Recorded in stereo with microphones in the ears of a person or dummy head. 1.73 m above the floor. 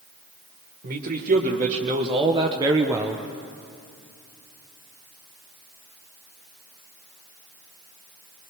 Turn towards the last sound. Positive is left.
turn(degrees=-5)  # may be behind; listen again after turning